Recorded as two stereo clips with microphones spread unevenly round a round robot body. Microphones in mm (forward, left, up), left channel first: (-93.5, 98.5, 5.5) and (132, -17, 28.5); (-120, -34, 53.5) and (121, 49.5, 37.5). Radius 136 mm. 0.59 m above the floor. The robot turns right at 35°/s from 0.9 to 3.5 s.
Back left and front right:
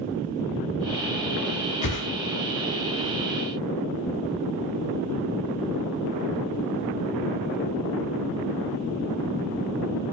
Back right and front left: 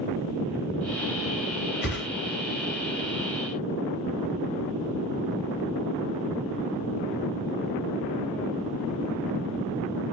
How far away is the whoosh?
About 2.5 m.